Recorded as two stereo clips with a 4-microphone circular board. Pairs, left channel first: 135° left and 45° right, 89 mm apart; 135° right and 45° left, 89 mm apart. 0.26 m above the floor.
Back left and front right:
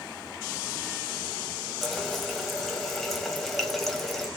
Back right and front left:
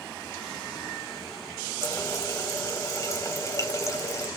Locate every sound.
1.8 s a running tap: 140° right, 0.7 m